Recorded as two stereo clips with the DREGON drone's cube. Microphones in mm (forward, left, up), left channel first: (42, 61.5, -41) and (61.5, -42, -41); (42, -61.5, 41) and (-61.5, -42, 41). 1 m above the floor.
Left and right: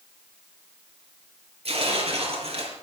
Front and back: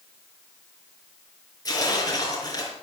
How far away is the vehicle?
I don't hear a vehicle.